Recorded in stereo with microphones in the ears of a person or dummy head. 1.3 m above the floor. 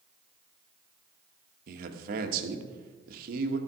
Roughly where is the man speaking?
Right.